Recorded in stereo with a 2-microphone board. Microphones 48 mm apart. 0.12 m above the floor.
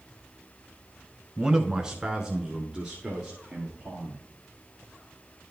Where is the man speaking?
10° right (ahead or behind), 1.1 m.